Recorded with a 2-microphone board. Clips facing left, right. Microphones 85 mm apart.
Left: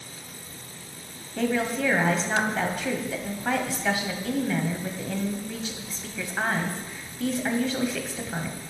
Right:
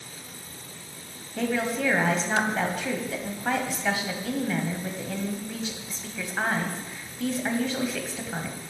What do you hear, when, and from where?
1.4 s a woman speaking: centre (ahead or behind), 1.3 m